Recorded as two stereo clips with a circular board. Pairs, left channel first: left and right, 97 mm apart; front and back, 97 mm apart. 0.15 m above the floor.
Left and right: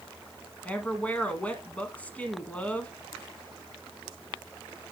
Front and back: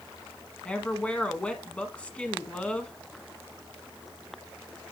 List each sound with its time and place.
0.7 s a woman speaking: 50° left, 1.1 m